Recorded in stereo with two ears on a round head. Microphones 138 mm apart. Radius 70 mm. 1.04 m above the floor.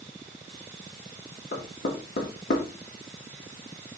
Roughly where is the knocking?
Left.